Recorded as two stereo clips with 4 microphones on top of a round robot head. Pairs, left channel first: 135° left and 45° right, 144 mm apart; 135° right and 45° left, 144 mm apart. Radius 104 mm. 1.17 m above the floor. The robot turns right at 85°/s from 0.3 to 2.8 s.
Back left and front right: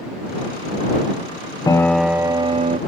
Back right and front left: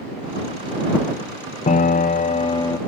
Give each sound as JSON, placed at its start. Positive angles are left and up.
{"t": 1.7, "sound": "a piano", "azimuth_deg": -160}